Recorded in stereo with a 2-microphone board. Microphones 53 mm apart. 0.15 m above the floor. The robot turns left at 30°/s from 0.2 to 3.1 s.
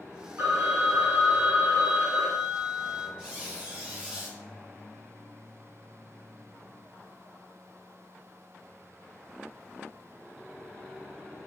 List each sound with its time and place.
0.4 s a phone ringing: 75° right, 1.2 m; by 3.1 s 155° right, 1.2 m
3.2 s a squeak: 15° right (ahead or behind), 1.1 m